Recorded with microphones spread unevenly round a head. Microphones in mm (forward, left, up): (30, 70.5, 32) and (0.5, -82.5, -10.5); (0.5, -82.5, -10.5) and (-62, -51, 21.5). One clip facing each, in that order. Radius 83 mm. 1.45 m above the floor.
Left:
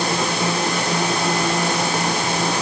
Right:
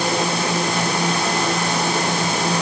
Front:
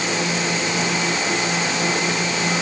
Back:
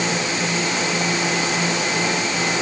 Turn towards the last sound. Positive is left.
No sound to turn to.